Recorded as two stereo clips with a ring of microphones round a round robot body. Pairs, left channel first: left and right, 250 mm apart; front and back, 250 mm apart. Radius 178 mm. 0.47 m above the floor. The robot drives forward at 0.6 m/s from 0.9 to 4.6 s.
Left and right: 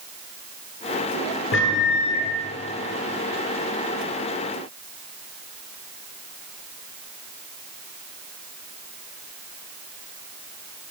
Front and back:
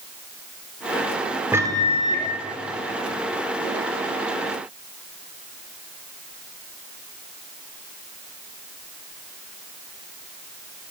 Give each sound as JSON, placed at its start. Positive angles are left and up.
{"t": 1.5, "sound": "a microwave", "azimuth_deg": 100, "distance_m": 1.0}